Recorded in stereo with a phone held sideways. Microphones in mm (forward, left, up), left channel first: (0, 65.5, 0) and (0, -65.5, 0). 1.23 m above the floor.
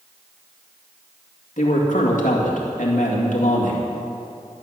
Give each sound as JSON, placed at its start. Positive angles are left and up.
{"t": 1.6, "sound": "a man speaking", "side_deg": 75, "distance_m": 2.0}